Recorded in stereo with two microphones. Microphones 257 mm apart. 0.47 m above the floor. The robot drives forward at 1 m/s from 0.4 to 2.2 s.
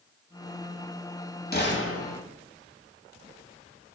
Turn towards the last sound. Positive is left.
turn(degrees=80)